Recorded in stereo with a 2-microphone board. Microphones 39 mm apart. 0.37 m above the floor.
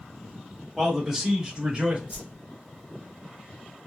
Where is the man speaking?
5° right (ahead or behind), 1.5 m; by 2.0 s 30° right (ahead or behind), 1.1 m.